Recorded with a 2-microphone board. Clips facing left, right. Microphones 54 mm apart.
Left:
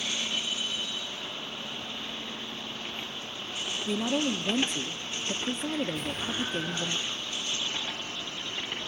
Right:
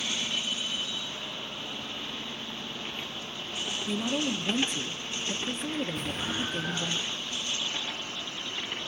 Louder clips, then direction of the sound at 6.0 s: Even; centre (ahead or behind).